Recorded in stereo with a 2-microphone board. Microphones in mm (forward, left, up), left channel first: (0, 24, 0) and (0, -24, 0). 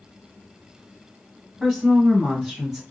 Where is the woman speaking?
Centre (ahead or behind), 1.0 m.